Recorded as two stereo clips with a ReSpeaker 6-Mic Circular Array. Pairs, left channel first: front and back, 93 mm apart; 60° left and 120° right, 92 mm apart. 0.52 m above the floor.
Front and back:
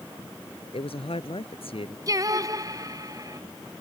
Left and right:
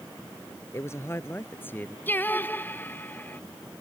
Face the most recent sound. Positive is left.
turn(degrees=130)